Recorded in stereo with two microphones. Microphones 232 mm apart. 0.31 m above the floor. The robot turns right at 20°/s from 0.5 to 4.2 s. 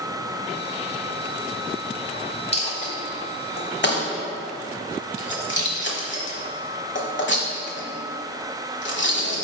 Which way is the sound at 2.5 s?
25° left (ahead or behind).